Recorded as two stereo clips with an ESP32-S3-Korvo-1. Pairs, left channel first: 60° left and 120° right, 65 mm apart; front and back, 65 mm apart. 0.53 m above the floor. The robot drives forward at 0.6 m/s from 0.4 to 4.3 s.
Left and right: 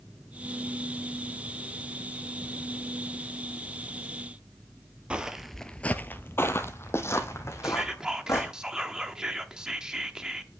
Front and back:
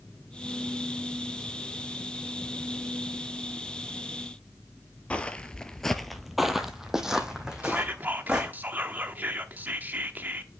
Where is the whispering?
175° left, 0.7 m.